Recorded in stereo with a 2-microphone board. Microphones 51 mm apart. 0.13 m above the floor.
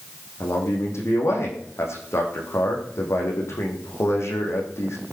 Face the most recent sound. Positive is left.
turn(degrees=60)  # may be behind; listen again after turning